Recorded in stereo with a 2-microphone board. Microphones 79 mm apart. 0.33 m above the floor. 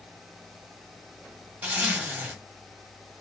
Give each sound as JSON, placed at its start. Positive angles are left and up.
{"t": 1.6, "sound": "a zipper", "side_deg": -20, "distance_m": 1.2}